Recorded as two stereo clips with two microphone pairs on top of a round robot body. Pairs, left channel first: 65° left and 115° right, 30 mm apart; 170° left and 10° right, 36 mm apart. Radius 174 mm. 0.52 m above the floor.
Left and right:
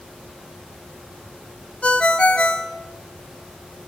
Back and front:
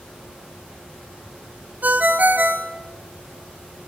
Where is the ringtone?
25° left, 1.2 m.